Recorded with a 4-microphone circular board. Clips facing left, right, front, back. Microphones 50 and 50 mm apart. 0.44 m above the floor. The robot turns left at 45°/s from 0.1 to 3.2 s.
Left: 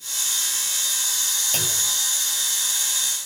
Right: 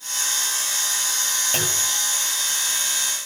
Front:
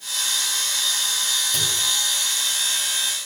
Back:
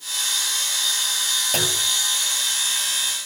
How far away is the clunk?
About 2 m.